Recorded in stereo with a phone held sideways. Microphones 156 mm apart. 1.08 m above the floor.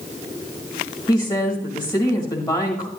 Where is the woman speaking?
30° left (ahead or behind), 1.6 m.